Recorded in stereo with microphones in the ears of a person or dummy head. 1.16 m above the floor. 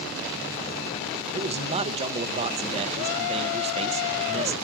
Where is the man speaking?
35° right (ahead or behind), 0.5 m.